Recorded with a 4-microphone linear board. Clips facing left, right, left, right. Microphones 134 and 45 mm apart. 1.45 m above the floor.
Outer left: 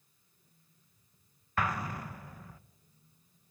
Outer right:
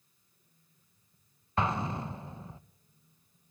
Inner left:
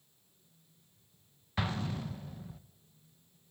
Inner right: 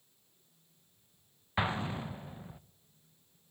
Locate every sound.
1.6 s an explosion: 25° right (ahead or behind), 0.6 m